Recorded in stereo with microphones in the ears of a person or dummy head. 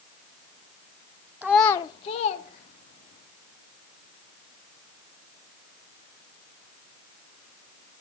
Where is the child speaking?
Centre (ahead or behind), 0.5 m; by 3.2 s 60° left (ahead or behind), 3 m.